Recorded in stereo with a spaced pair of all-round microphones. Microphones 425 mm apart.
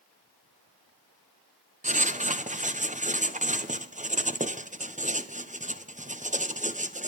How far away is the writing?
About 1.0 m.